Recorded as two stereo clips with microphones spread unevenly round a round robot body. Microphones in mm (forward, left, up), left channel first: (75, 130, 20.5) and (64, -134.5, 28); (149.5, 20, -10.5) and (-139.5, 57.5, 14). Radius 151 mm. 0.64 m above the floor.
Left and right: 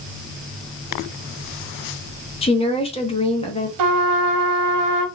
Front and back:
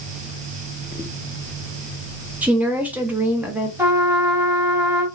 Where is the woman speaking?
85° left, 1.0 m.